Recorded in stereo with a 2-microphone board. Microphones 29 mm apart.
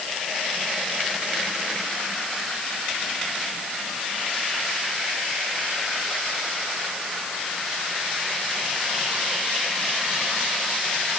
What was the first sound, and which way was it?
Only background noise.